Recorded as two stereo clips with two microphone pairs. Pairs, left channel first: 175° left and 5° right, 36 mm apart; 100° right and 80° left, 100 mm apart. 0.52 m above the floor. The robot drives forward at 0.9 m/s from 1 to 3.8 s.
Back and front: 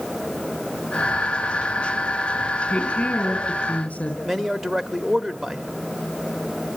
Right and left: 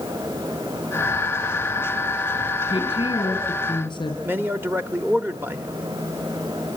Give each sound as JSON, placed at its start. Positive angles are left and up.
{"t": 2.7, "sound": "a woman speaking", "azimuth_deg": -130, "distance_m": 5.0}
{"t": 4.2, "sound": "a man speaking", "azimuth_deg": 75, "distance_m": 0.8}